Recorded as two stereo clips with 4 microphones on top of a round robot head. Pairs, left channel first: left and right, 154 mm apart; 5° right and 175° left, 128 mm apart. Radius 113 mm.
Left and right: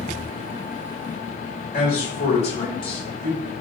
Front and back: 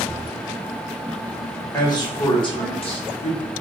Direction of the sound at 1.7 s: 55° left.